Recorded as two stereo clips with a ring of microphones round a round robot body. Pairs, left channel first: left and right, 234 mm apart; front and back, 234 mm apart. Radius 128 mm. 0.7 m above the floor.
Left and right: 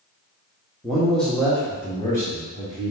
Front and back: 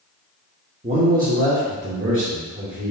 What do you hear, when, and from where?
0.8 s a man speaking: 175° right, 1.0 m; by 2.9 s 165° left, 2 m